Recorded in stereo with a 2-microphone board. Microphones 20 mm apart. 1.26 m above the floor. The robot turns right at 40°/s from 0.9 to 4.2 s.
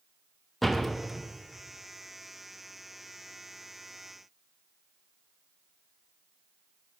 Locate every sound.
0.6 s a door slam: centre (ahead or behind), 0.7 m; by 1.2 s 10° right (ahead or behind), 0.7 m